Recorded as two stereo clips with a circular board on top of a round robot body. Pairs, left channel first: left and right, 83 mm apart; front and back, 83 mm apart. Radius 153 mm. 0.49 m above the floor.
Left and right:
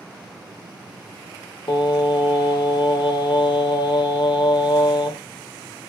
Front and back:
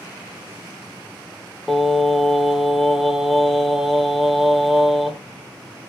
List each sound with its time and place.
1.7 s singing: 95° left, 0.8 m